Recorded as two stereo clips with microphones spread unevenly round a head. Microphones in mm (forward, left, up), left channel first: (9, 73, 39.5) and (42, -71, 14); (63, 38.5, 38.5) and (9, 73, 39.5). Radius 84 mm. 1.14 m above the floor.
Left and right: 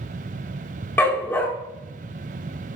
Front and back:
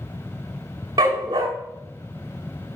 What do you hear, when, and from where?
1.0 s a dog barking: 175° left, 1.0 m